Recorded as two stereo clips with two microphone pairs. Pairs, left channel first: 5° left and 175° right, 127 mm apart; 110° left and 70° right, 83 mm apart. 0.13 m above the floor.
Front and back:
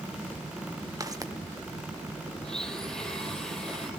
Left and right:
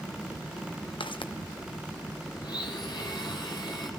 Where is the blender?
90° left, 3.5 m.